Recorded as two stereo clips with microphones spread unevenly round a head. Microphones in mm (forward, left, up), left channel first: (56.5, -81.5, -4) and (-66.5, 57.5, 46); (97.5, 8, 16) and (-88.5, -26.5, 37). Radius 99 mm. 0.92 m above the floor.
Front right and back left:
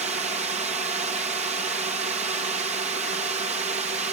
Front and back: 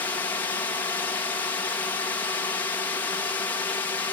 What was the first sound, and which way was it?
A drone, 75° left.